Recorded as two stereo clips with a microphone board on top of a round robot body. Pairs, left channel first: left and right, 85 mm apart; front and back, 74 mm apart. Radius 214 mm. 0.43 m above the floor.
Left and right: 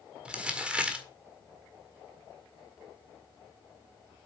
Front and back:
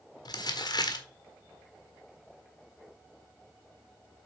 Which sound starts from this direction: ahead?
Crumpling, at 0.2 s.